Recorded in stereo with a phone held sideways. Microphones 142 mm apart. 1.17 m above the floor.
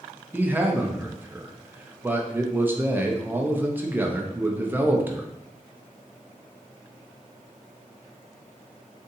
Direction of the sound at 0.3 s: 15° right (ahead or behind).